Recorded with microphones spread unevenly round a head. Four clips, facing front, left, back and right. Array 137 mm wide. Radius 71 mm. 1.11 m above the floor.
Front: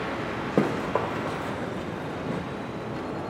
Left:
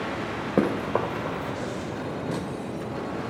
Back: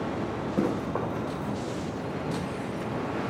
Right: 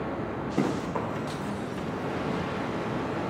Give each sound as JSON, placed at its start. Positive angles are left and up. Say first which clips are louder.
{"t": 0.6, "sound": "running footsteps", "louder": "left 5 dB, front 4 dB", "azimuth_deg": 50, "distance_m": 2.5}